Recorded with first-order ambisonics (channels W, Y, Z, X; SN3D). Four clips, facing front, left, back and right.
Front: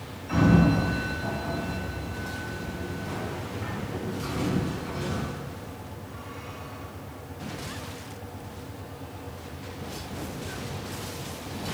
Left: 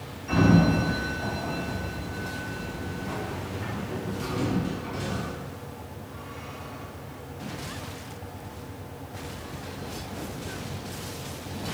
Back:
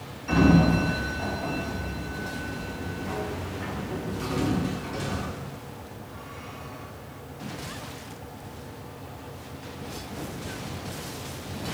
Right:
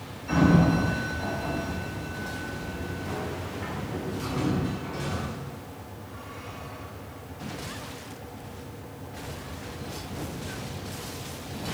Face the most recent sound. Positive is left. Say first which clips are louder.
# even, back 1 dB
turn(degrees=-175)